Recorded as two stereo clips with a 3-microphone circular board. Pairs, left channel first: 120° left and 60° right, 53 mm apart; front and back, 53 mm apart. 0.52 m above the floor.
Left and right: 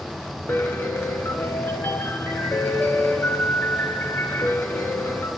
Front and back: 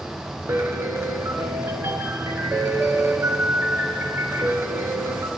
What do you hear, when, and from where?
0.5 s a piano: 150° left, 0.9 m